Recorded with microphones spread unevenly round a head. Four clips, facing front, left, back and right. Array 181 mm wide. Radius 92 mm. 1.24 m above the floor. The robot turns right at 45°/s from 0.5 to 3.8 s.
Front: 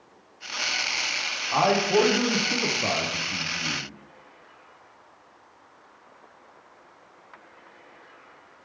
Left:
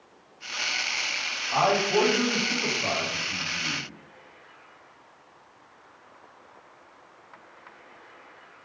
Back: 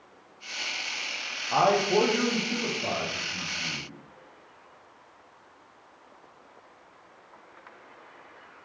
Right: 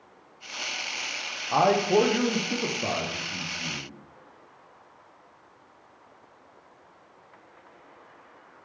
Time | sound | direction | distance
1.5 | a man speaking | 95° right | 0.6 m